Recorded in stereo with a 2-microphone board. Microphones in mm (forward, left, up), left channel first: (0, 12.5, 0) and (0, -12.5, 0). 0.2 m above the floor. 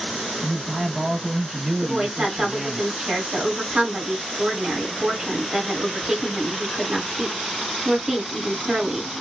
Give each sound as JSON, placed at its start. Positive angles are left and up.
{"t": 0.4, "sound": "a man speaking", "side_deg": -30, "distance_m": 1.2}
{"t": 1.8, "sound": "a woman speaking", "side_deg": -30, "distance_m": 1.8}